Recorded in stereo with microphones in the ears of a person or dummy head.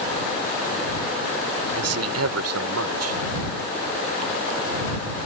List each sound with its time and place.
1.8 s a man speaking: 85° right